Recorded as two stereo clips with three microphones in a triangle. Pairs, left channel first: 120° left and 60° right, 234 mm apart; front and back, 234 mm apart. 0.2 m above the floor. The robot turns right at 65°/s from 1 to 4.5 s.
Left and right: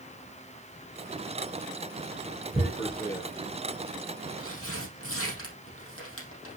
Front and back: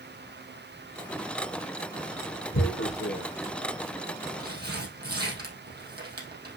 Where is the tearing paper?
5° left, 3.5 m; by 6.6 s 135° left, 3.5 m.